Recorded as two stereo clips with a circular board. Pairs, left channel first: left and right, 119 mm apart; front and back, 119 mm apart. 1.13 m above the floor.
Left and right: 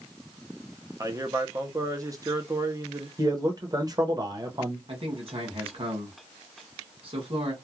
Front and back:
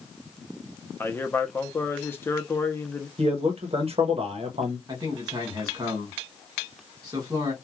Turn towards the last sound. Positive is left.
turn(degrees=-125)